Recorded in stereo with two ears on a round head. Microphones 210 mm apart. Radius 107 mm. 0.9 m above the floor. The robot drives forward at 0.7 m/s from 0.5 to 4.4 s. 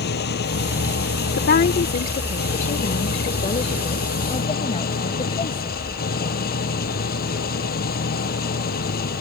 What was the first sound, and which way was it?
An engine running, 50° left (ahead or behind).